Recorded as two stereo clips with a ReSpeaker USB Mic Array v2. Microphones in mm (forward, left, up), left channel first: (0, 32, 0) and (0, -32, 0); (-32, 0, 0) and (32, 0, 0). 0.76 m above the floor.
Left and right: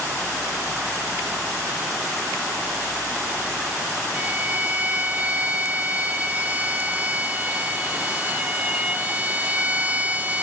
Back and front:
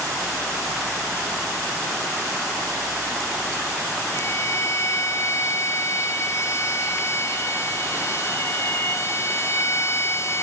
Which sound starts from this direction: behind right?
A violin, at 4.1 s.